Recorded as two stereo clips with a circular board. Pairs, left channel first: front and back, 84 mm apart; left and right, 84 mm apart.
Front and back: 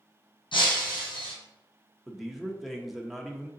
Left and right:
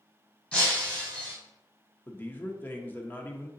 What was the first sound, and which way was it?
Breaking glass, 15° left.